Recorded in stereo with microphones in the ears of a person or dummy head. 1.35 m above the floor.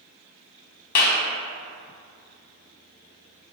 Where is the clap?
55° left (ahead or behind), 0.6 m.